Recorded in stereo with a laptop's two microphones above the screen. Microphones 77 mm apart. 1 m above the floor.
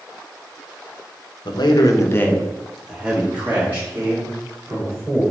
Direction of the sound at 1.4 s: 70° left (ahead or behind).